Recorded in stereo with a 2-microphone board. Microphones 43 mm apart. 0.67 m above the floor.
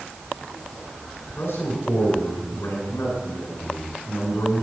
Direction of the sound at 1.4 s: 80° left.